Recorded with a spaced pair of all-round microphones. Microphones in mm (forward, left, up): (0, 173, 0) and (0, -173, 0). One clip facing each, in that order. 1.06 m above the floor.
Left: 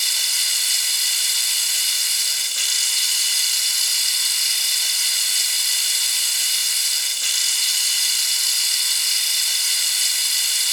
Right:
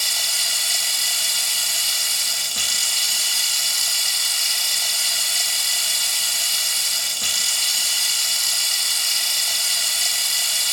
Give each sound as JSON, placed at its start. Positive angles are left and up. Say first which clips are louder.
{"t": 0.0, "sound": "running water", "louder": "right 7 dB", "side_deg": -70}